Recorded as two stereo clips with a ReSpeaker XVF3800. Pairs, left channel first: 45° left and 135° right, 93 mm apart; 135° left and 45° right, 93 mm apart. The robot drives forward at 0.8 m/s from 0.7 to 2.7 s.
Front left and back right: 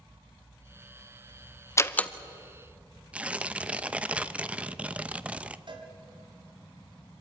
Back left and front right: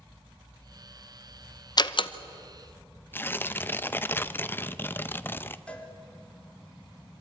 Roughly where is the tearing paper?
Behind.